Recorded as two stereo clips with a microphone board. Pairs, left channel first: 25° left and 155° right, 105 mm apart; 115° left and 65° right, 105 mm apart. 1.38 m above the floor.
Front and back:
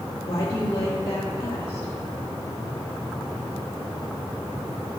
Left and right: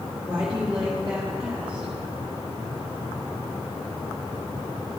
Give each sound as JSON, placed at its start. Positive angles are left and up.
{"t": 0.3, "sound": "a woman speaking", "azimuth_deg": 10, "distance_m": 1.5}